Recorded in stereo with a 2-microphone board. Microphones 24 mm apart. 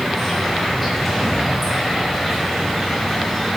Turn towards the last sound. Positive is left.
turn(degrees=0)  # may be behind; listen again after turning